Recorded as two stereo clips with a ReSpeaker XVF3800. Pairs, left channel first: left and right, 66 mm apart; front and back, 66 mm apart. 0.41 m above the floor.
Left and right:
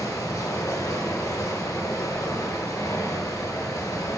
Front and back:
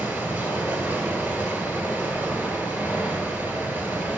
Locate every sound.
0.0 s running water: 125° left, 1.5 m